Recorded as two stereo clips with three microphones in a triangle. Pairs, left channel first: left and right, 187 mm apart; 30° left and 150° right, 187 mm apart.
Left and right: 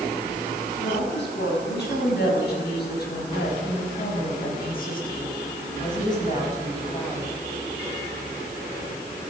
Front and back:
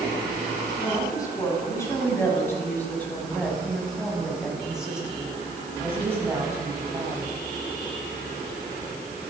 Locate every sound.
0.8 s a woman speaking: 100° left, 6 m; by 7.3 s 145° left, 4.5 m